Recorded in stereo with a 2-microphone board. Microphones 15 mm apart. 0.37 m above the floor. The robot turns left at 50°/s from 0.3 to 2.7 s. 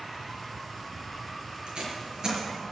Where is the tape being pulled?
65° right (ahead or behind), 5 m; by 2.4 s 25° right (ahead or behind), 5 m.